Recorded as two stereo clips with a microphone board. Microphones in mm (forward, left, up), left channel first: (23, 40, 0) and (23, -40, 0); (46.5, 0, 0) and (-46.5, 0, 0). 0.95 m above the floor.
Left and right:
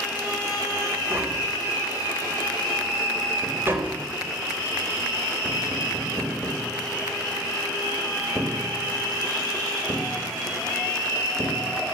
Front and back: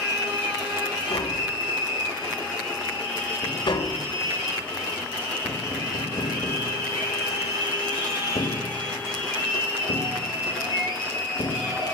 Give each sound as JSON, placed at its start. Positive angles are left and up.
{"t": 1.1, "sound": "tapping", "azimuth_deg": -25, "distance_m": 3.0}